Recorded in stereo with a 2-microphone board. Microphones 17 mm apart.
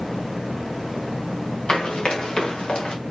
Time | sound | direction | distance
1.7 | running footsteps | 70° left (ahead or behind) | 5 m